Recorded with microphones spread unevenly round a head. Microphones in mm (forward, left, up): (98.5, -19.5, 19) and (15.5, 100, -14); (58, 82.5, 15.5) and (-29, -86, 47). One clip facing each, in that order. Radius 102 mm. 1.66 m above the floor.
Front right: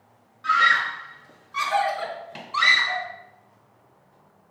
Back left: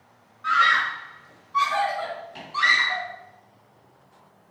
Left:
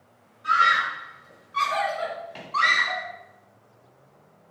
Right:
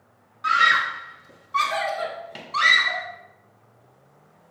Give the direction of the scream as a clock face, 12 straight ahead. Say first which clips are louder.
Even, even; 4 o'clock.